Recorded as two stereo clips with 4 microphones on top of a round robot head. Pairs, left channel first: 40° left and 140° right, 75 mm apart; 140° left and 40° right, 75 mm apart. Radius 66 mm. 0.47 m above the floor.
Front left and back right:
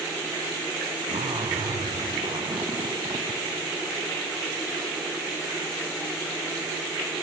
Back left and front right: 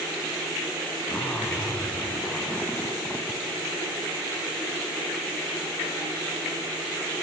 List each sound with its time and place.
1.1 s a zipper: 150° right, 0.6 m